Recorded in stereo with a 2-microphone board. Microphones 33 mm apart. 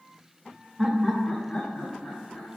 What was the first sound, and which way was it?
Laughter, 15° right (ahead or behind).